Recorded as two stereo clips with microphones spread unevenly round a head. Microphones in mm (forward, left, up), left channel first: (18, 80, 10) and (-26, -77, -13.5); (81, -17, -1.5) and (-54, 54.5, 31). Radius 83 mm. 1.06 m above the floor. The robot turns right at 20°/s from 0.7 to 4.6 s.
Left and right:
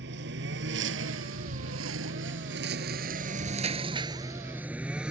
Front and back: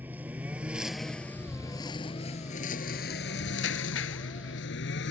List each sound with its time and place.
0.0 s a lawn mower: 130° right; by 5.1 s 20° right